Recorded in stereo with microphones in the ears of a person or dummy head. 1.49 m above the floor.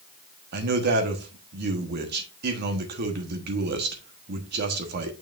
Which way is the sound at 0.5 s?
50° right (ahead or behind).